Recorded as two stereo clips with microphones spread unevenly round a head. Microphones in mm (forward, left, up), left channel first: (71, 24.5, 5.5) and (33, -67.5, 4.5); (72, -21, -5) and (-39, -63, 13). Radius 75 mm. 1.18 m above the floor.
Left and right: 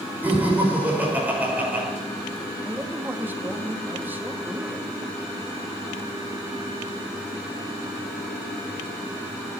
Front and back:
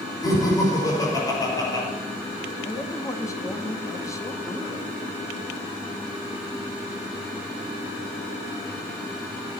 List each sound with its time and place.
0.2 s laughter: 40° right, 6 m
2.6 s a man speaking: 40° right, 2 m